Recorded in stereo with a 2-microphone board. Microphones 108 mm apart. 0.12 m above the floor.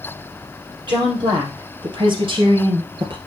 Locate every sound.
0.9 s a woman speaking: 45° right (ahead or behind), 4 m; by 3.2 s 50° right (ahead or behind), 2.5 m